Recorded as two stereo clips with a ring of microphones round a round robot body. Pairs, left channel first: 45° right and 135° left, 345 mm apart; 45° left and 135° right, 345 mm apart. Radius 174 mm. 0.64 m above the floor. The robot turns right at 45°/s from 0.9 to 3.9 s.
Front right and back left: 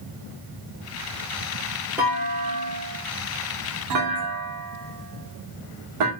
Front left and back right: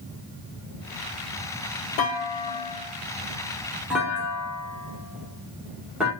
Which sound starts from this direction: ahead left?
A clunk, at 2.0 s.